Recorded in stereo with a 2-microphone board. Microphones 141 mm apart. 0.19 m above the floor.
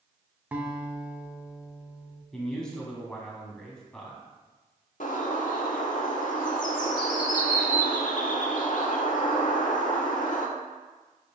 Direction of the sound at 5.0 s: 75° left (ahead or behind).